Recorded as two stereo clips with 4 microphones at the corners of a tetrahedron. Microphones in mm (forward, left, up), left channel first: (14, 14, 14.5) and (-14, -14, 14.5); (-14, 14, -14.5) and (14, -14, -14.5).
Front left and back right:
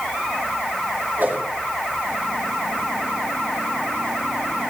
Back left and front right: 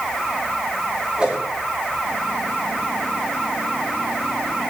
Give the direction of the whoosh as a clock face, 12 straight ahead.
4 o'clock.